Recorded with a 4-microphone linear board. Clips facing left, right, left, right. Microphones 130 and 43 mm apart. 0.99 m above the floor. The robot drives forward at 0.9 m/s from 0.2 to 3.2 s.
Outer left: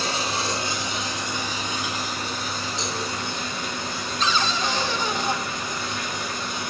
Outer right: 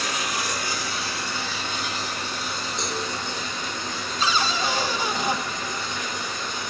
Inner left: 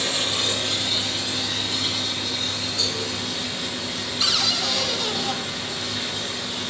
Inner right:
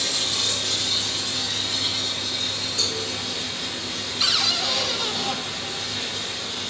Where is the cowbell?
55° right (ahead or behind), 2.5 m.